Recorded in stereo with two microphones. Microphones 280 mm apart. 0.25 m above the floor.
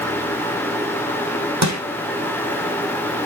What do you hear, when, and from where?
1.6 s crushing: 75° right (ahead or behind), 3 m